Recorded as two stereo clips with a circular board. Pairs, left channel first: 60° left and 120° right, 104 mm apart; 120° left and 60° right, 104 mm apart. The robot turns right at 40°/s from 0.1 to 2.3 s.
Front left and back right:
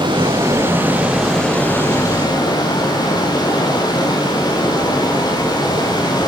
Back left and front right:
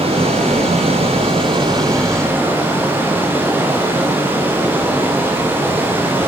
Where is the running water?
80° right, 6.5 m; by 6.3 s 10° left, 6.5 m.